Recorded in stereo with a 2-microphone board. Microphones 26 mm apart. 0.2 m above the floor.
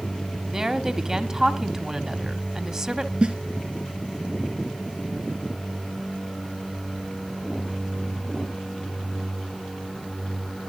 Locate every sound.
0.5 s a woman speaking: 20° right (ahead or behind), 1.2 m
3.2 s a snare drum: 40° right (ahead or behind), 2.5 m